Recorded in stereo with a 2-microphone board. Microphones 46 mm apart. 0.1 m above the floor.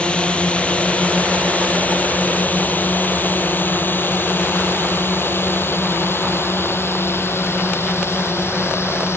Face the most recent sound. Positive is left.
turn(degrees=65)  # may be behind; listen again after turning